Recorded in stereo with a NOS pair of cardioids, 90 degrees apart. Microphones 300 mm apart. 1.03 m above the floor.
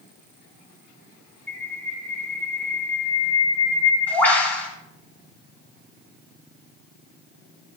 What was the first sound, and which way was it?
A bird, 5° left.